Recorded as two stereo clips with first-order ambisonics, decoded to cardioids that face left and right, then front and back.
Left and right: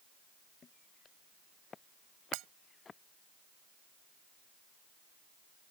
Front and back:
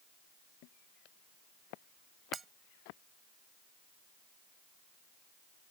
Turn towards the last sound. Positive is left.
turn(degrees=-110)